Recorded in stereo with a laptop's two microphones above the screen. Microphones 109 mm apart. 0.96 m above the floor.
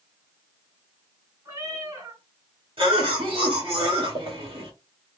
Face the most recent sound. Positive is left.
turn(degrees=-55)  # may be behind; listen again after turning